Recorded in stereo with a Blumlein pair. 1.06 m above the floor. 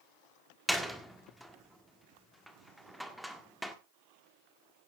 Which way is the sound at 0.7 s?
Straight ahead.